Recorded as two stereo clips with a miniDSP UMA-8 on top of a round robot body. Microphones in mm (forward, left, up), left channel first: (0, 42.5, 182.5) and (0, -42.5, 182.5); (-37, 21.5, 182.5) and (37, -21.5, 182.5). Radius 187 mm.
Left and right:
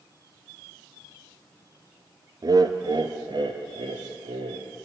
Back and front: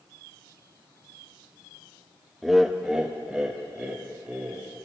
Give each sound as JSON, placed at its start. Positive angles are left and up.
{"t": 2.4, "sound": "laughter", "azimuth_deg": -120, "distance_m": 1.0}